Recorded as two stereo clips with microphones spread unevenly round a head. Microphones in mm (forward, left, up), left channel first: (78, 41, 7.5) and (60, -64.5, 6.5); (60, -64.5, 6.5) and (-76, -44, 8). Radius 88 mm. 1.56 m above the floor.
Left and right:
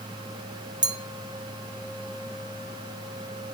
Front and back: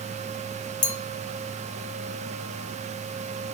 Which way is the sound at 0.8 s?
55° right.